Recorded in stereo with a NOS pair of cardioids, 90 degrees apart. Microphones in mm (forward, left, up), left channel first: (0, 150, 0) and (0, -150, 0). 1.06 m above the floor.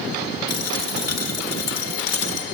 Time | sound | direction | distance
0.5 | a dropped coin | 55° left | 1.5 m